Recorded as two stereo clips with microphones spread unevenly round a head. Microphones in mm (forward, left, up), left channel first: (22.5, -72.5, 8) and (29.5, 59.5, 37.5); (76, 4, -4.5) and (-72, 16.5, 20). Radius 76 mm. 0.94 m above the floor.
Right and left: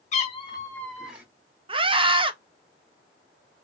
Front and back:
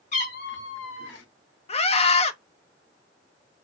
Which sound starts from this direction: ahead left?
A scream, at 1.7 s.